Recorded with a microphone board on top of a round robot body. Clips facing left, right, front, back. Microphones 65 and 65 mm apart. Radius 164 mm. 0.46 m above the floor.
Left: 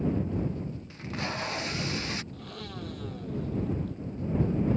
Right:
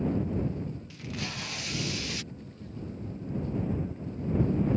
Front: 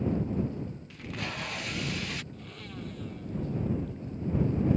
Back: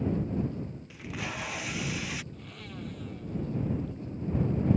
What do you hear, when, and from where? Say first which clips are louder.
0.9 s tape being pulled: left 3 dB, back 1 dB; 100° left
2.3 s a blender: left 3 dB, front 1 dB; 90° left